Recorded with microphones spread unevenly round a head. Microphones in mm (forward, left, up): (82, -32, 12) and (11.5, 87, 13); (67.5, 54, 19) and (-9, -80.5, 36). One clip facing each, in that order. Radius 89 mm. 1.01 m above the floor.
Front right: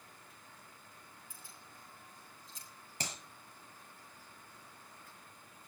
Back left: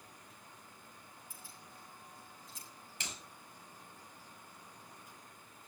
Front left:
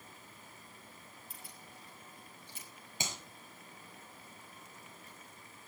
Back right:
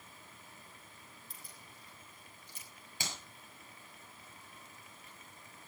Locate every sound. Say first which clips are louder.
1.3 s keys jangling: back left 1 dB, front left 3 dB; 65° right, 7.5 m; by 2.7 s 70° right, 7 m
3.0 s a clap: front right 4 dB, front left 2 dB; 10° right, 5.5 m